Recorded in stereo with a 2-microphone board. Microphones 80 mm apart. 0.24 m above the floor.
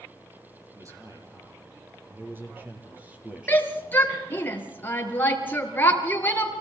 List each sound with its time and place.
0.7 s a man speaking: 40° right (ahead or behind), 6.5 m; by 4.5 s centre (ahead or behind), 5 m
3.5 s a shout: 25° left (ahead or behind), 3.5 m